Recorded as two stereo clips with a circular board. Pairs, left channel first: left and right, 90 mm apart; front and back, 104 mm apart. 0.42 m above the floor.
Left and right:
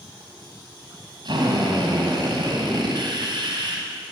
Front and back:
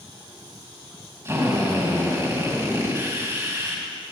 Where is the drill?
120° right, 2.5 m.